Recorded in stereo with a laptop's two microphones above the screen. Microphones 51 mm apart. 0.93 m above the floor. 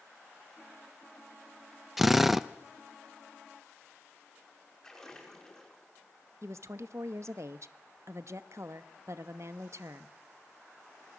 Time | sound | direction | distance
2.0 | a drill | 5° right (ahead or behind) | 0.7 m
4.8 | a splash | 15° left (ahead or behind) | 5 m
6.4 | a woman speaking | 65° right (ahead or behind) | 1.0 m